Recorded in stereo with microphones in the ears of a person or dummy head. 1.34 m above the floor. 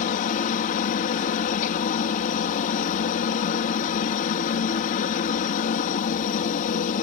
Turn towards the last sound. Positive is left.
turn(degrees=40)  # may be behind; listen again after turning